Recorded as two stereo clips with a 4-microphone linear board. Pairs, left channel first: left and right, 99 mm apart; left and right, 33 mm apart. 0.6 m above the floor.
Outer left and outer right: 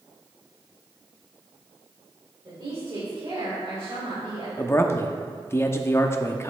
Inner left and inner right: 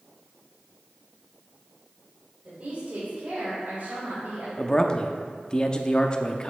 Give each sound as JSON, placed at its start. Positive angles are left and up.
{"t": 2.5, "sound": "a woman speaking", "side_deg": -40, "distance_m": 2.5}
{"t": 4.6, "sound": "a man speaking", "side_deg": 25, "distance_m": 0.6}